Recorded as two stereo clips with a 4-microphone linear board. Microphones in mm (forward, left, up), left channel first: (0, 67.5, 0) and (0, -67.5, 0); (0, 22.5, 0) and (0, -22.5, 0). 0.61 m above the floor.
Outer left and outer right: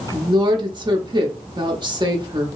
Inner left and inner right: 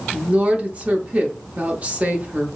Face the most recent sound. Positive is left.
turn(degrees=-35)  # may be behind; listen again after turning